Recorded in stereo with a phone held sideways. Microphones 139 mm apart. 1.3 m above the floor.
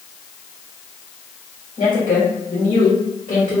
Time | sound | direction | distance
1.8 | a woman speaking | 70° left (ahead or behind) | 1.7 m